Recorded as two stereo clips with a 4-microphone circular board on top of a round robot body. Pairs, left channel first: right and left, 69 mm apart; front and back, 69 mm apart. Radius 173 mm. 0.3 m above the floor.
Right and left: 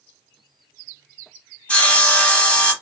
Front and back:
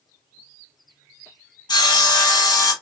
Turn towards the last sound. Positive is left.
turn(degrees=-20)